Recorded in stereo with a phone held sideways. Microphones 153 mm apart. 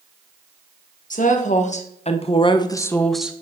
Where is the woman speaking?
65° left (ahead or behind), 1.5 m; by 3.4 s 15° right (ahead or behind), 0.7 m.